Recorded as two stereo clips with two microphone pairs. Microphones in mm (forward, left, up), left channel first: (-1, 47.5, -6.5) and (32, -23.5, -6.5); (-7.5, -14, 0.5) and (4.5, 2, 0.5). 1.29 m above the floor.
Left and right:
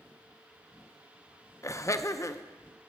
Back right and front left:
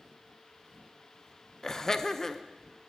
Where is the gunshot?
No gunshot in this recording.